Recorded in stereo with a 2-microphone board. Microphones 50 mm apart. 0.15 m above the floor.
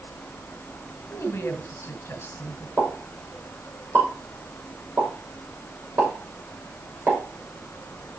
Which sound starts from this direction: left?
A woman speaking, at 1.1 s.